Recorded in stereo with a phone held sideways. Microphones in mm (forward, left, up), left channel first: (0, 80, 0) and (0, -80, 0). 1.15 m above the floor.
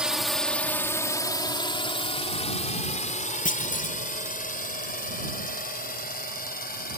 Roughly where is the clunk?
Left.